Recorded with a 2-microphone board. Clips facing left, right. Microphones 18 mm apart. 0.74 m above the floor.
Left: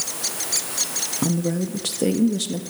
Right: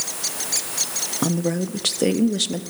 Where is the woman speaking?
25° right (ahead or behind), 0.5 m.